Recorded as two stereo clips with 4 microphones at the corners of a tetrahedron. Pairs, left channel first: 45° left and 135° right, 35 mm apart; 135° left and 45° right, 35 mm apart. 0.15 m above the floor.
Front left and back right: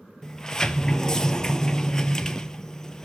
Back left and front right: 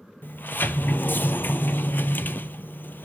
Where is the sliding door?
120° left, 0.6 m.